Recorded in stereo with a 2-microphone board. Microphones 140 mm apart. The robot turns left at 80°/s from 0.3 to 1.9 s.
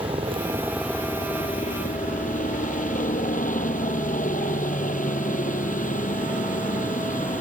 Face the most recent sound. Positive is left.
turn(degrees=95)